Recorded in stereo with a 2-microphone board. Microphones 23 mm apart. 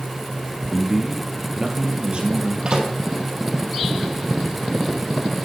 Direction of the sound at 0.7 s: 10° right (ahead or behind).